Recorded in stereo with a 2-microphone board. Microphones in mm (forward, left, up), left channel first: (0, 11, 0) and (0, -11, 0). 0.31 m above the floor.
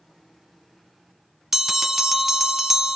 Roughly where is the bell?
Centre.